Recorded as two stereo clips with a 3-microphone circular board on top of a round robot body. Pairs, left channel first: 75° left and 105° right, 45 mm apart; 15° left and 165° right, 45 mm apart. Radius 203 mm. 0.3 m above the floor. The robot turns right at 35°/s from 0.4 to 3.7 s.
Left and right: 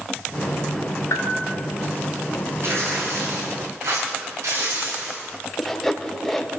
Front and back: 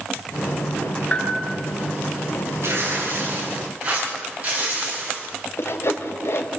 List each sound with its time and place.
1.1 s a bell: 80° left, 2.0 m; by 1.3 s 90° left, 2.0 m
2.6 s tearing paper: 140° right, 5.5 m; by 5.3 s 100° right, 5.5 m
5.6 s sawing: 10° right, 1.8 m